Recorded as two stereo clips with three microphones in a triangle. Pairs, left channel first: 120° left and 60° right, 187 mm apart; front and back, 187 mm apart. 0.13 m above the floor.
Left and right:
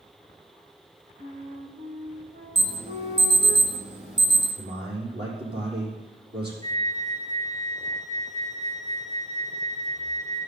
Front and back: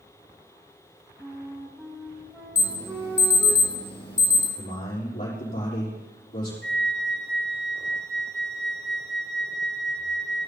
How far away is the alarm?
About 5 m.